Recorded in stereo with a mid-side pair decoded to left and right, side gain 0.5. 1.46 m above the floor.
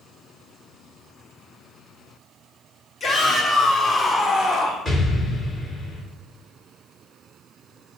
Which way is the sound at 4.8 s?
30° left.